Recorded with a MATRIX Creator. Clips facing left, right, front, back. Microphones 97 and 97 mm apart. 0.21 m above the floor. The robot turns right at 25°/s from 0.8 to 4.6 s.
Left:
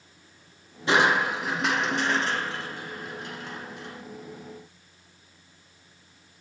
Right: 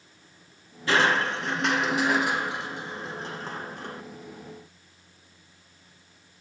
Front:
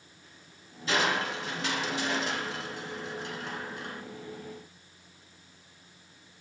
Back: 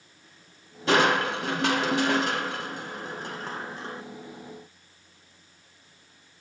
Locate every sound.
0.9 s crushing: 160° left, 0.6 m; by 4.0 s 125° right, 0.6 m